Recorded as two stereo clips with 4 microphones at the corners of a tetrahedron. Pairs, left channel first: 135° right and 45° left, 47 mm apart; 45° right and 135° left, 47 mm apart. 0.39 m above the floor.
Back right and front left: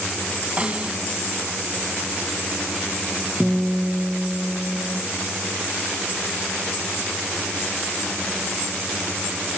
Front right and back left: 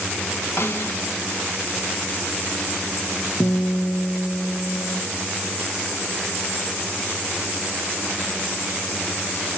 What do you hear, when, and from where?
0.6 s a snare drum: 20° right, 2.5 m
3.4 s a guitar: 55° right, 3.5 m